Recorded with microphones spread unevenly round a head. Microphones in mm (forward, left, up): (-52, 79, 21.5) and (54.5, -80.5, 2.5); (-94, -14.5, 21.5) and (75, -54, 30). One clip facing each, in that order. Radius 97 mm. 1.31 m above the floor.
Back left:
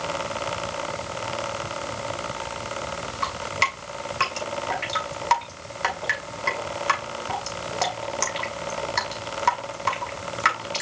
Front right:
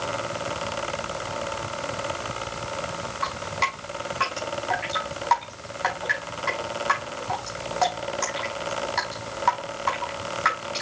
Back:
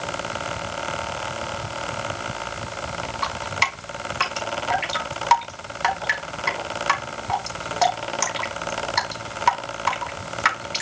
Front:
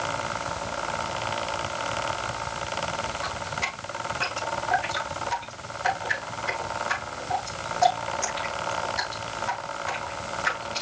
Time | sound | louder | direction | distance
3.2 | dripping | back left 1 dB, back 4 dB | 175° left | 4.5 m